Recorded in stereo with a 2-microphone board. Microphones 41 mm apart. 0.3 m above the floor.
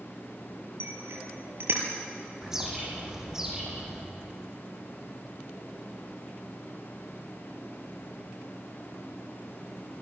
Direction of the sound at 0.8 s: 75° right (ahead or behind).